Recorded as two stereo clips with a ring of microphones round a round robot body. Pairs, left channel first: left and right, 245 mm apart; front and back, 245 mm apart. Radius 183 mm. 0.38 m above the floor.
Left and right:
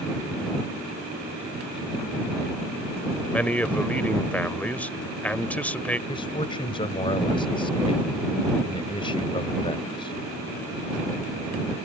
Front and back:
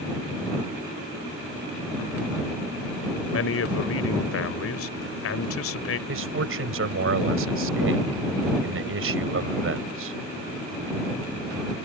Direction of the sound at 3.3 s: 5° left.